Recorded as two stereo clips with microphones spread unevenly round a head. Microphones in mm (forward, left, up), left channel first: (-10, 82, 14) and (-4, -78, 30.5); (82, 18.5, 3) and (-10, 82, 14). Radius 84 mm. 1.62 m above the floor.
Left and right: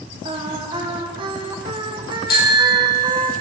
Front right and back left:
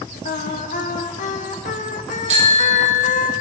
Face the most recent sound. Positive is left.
turn(degrees=125)